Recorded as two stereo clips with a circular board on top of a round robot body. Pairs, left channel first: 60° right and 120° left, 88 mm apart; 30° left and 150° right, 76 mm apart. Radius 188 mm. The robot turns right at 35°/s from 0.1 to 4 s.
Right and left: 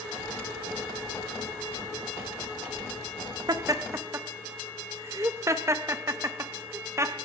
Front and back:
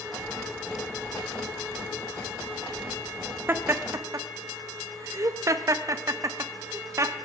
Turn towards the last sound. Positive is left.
turn(degrees=170)